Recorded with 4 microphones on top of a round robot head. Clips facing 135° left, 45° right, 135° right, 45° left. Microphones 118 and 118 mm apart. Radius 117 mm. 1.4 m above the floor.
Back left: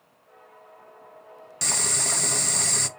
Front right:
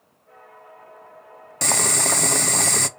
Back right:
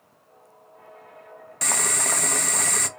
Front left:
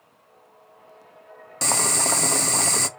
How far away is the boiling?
About 0.5 m.